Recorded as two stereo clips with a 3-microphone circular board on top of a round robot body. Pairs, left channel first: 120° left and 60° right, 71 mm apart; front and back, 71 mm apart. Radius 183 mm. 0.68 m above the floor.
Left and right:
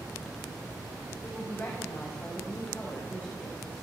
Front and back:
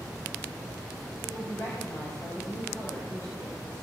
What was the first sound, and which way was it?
A woman speaking, 55° left.